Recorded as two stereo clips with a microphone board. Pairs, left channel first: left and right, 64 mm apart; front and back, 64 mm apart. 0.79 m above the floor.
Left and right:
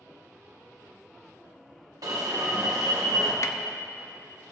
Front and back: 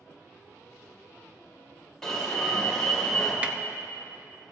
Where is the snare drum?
115° left, 0.6 m.